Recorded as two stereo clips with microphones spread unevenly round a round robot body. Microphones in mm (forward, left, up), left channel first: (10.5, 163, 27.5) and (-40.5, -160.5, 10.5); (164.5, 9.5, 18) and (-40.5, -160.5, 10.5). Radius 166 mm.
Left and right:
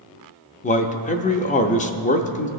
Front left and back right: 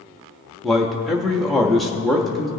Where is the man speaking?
130° left, 0.7 m.